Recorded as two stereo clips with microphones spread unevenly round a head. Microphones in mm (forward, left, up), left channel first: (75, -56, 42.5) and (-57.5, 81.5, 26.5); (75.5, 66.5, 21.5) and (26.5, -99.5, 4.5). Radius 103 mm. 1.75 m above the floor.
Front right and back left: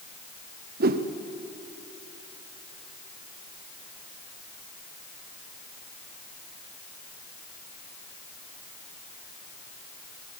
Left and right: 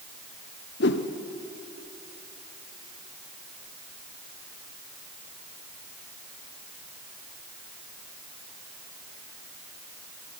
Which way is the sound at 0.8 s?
95° left.